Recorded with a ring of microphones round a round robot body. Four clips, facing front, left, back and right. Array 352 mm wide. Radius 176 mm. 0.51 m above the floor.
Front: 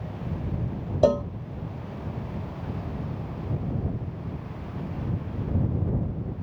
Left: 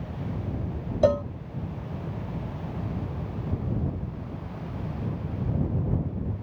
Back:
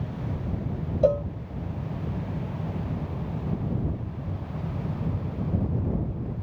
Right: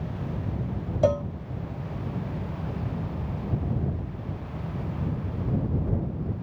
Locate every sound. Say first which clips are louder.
1.0 s a cowbell: left 1 dB, front 1 dB; 20° left